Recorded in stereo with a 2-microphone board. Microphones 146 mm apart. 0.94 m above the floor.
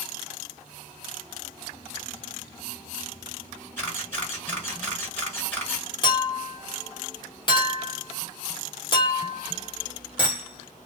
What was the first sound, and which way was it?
A camera shutter, 15° left (ahead or behind).